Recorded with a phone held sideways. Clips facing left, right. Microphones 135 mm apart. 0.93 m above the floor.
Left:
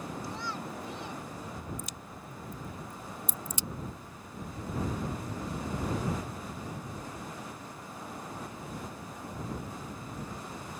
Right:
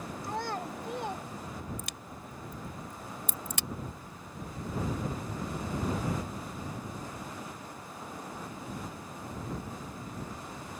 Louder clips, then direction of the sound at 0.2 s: Right 3 dB; 60° right (ahead or behind).